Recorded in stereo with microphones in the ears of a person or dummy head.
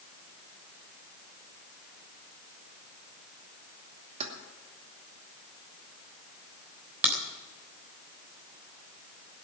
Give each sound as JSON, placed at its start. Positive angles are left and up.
{"t": 4.2, "sound": "keys jangling", "side_deg": -35, "distance_m": 2.0}
{"t": 7.0, "sound": "a crack", "side_deg": -10, "distance_m": 3.5}